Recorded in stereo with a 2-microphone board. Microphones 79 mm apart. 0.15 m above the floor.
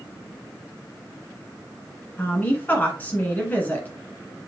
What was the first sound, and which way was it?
A woman speaking, 20° left (ahead or behind).